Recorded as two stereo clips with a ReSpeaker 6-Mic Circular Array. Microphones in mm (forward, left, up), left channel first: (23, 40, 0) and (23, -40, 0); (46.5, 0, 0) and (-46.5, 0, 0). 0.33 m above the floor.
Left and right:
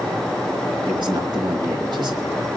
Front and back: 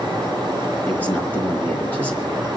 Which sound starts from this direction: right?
A man speaking, at 0.9 s.